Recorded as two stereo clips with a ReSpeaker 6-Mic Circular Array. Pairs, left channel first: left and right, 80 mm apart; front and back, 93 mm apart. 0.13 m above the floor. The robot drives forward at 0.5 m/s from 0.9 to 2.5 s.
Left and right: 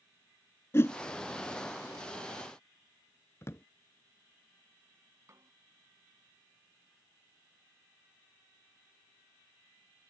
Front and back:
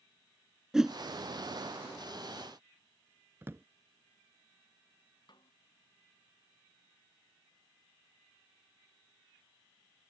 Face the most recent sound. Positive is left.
turn(degrees=-35)